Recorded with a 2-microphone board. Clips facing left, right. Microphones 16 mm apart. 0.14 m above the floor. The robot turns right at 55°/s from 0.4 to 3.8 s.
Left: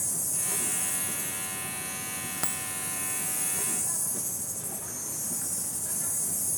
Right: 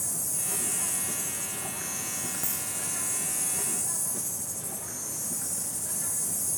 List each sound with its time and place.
0.0 s an insect: 175° left, 7 m; by 6.6 s 5° left, 7 m
2.4 s a dropped coin: 45° left (ahead or behind), 0.6 m; by 2.7 s 40° left (ahead or behind), 0.6 m